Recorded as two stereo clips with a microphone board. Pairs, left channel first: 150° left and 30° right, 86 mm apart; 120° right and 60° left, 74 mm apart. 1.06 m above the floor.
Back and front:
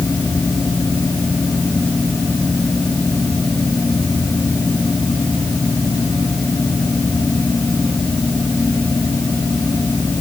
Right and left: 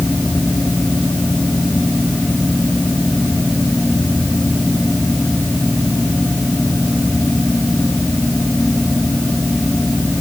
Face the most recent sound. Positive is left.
No sound to turn to.